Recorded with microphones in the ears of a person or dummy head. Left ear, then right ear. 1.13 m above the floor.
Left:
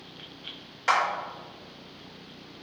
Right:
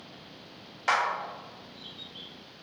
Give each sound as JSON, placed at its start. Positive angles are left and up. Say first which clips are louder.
{"t": 0.9, "sound": "a clap", "louder": "left 2 dB", "side_deg": 5, "distance_m": 0.6}